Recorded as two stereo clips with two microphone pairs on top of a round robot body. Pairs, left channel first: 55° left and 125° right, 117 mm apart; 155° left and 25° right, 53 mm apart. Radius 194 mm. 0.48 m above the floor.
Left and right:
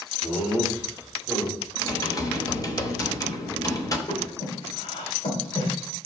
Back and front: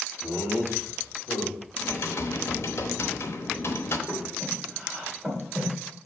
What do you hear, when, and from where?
0.2 s laughter: 100° left, 3 m; by 1.7 s 115° left, 3.5 m
1.8 s typing on a keyboard: 115° left, 0.9 m
4.1 s breathing: 60° left, 3 m